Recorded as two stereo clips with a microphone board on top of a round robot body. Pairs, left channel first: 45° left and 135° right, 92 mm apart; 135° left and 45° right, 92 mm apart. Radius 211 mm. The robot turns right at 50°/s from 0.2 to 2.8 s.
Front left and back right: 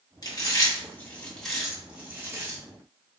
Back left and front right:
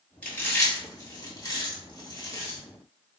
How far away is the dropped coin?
I don't hear a dropped coin.